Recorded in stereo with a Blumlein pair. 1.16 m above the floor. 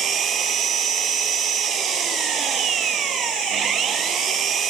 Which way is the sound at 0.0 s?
25° right.